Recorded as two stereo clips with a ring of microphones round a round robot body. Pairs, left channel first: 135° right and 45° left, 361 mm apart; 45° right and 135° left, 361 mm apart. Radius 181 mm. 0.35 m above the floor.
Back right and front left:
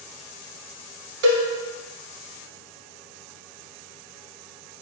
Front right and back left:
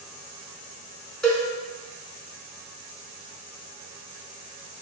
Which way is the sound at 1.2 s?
45° left.